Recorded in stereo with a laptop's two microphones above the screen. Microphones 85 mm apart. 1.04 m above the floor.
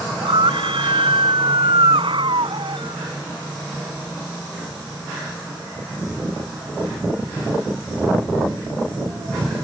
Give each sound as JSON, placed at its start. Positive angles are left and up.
{"t": 0.1, "sound": "a scream", "side_deg": -80}